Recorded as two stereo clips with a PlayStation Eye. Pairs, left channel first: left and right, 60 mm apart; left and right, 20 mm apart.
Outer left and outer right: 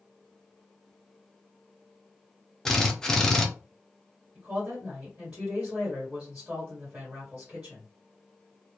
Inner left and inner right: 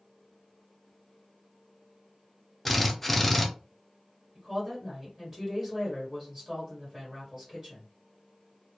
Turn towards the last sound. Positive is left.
turn(degrees=-25)  # may be behind; listen again after turning